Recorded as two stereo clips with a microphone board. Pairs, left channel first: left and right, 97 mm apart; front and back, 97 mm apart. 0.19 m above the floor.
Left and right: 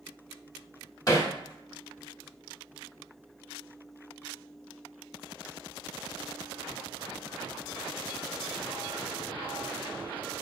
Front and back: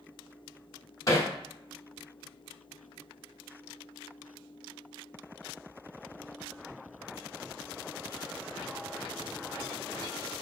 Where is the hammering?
45° left, 0.8 m.